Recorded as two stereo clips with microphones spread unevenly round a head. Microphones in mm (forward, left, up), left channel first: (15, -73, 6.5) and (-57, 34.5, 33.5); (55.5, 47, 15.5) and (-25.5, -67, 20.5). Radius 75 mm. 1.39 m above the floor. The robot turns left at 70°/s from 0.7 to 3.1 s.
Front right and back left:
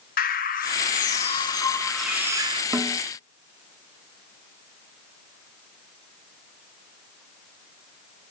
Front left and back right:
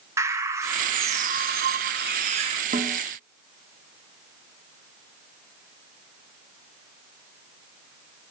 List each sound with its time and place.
0.2 s a bird: 55° right, 1.6 m; by 2.6 s 170° left, 1.6 m
2.7 s a snare drum: 170° right, 1.6 m; by 3.0 s 170° left, 1.6 m